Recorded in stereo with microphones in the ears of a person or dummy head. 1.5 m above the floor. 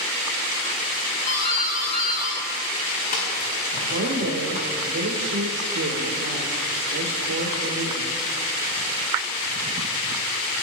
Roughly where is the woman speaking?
Right.